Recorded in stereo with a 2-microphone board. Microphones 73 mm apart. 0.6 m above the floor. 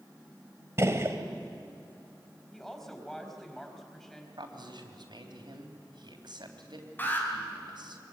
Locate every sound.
0.8 s a gunshot: 35° right (ahead or behind), 1.9 m
2.5 s a woman speaking: 5° left (ahead or behind), 4.5 m
4.4 s a man speaking: 75° right (ahead or behind), 3.5 m
7.0 s an alarm: 25° left (ahead or behind), 4.5 m